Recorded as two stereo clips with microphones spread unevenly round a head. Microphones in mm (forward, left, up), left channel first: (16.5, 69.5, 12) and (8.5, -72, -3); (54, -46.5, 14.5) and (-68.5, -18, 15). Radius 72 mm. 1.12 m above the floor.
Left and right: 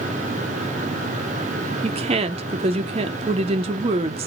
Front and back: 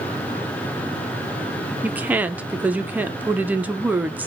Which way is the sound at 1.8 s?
120° right.